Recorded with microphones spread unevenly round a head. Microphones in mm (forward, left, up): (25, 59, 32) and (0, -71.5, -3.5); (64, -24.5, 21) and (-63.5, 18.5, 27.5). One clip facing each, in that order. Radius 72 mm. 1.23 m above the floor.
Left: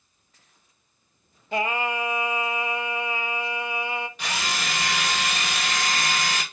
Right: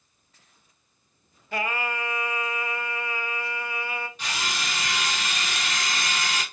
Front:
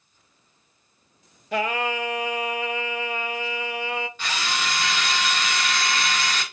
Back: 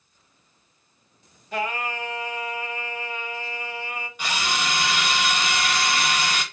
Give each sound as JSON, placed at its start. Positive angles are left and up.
{"t": 1.5, "sound": "singing", "azimuth_deg": 10, "distance_m": 0.5}
{"t": 4.2, "sound": "a drill", "azimuth_deg": 85, "distance_m": 0.8}